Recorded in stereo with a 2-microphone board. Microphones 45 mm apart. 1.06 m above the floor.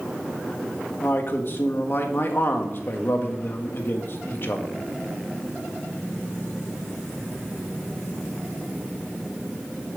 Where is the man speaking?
50° left (ahead or behind), 1.5 m.